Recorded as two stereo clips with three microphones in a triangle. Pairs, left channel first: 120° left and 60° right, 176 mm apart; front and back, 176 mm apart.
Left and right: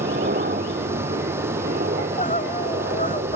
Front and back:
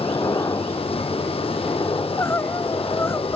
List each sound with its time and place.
0.0 s a helicopter: 70° right
2.0 s crying: 80° left